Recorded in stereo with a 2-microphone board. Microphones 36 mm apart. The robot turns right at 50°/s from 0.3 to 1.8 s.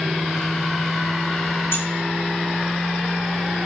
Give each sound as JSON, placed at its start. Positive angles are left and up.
{"t": 1.7, "sound": "keys jangling", "side_deg": 75, "distance_m": 2.5}